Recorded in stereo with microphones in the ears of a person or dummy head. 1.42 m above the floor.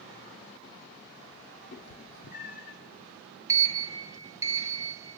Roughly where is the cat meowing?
Left.